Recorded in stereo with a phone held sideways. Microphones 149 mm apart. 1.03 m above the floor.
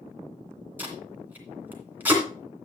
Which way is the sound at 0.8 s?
10° right (ahead or behind).